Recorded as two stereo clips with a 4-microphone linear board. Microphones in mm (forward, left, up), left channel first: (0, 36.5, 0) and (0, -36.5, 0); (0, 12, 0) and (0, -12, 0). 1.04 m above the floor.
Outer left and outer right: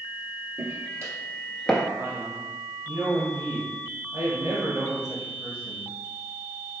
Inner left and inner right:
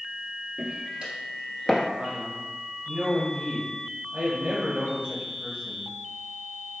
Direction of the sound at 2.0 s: 55° right (ahead or behind).